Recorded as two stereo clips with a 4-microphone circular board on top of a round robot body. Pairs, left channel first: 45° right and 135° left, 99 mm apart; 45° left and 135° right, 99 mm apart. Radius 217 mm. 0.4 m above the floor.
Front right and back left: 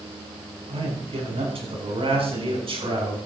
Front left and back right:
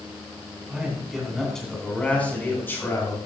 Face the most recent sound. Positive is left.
turn(degrees=110)